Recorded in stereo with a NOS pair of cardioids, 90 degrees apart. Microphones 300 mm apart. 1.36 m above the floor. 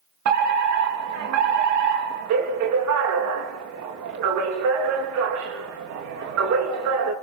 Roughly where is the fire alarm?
Right.